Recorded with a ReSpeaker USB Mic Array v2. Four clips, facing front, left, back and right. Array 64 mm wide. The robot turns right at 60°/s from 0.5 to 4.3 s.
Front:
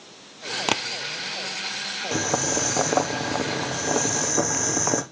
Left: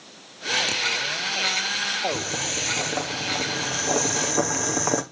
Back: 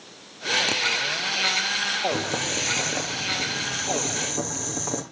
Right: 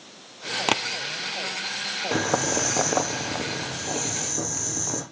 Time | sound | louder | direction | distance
0.7 | tapping | right 5 dB, front 3 dB | 55° right | 0.9 m
2.1 | boiling | right 6 dB, front 2 dB | 75° right | 2.5 m